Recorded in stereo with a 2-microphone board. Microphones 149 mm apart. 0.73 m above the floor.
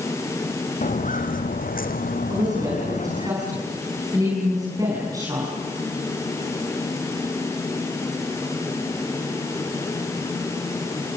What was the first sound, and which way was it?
Footsteps, 60° left (ahead or behind).